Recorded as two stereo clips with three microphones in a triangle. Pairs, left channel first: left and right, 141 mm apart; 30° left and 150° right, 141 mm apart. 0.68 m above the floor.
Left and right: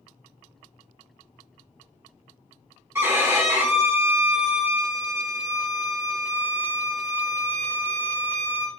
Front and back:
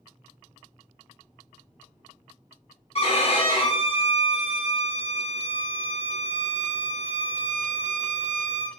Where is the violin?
20° right, 1.0 m.